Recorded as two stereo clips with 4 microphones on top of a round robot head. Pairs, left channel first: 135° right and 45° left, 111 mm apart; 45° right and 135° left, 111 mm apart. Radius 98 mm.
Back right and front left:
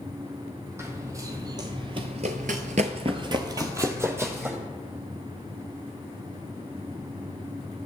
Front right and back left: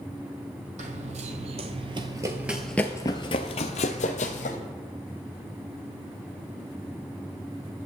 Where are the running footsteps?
115° left, 1.2 m; by 4.6 s 30° right, 1.2 m.